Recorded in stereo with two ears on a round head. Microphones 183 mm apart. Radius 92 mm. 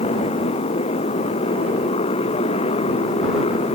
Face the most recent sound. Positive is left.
turn(degrees=30)  # may be behind; listen again after turning